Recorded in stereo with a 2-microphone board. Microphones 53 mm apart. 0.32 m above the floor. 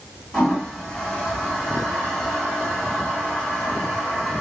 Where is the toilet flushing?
5° left (ahead or behind), 1.7 m.